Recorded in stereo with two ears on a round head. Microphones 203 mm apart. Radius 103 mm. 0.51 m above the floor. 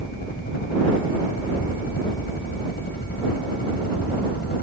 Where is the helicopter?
45° left (ahead or behind).